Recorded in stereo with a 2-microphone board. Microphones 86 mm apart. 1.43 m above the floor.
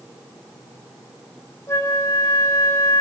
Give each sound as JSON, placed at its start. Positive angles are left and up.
{"t": 1.7, "sound": "a flute", "side_deg": 35, "distance_m": 1.2}